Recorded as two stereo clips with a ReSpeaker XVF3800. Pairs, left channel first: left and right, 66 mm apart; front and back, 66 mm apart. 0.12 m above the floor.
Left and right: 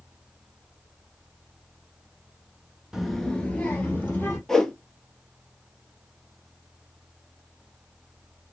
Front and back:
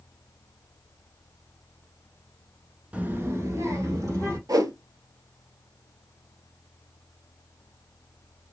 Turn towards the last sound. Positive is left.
turn(degrees=170)